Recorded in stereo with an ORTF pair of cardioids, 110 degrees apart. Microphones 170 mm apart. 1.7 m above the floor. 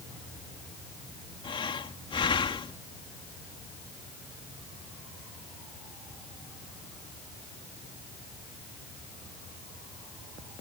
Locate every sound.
1.4 s breathing: 30° left